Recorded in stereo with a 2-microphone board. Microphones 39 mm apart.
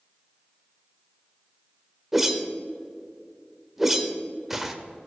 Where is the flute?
No flute in this recording.